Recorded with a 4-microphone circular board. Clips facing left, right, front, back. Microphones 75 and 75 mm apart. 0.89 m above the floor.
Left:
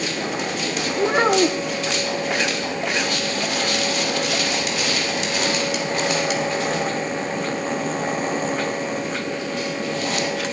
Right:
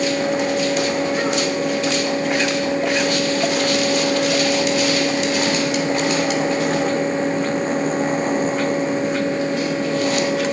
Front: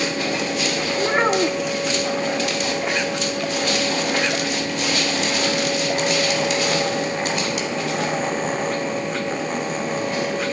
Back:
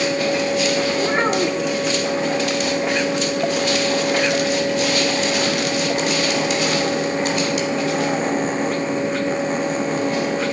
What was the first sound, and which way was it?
A child speaking, 85° left.